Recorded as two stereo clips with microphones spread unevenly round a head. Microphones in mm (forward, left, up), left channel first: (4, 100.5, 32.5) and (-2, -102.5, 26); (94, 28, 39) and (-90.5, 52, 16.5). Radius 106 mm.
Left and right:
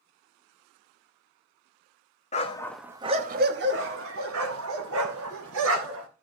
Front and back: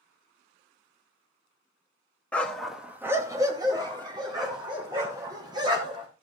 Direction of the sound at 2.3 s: 60° left.